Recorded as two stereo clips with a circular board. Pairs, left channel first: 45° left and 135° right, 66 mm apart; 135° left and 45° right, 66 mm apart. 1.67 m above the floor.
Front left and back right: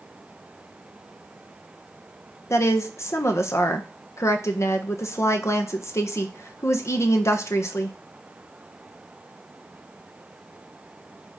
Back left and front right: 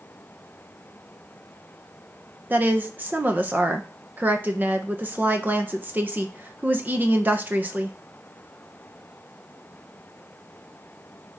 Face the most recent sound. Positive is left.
turn(degrees=15)